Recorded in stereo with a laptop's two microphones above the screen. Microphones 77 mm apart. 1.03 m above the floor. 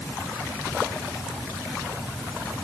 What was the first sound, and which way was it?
Only background noise.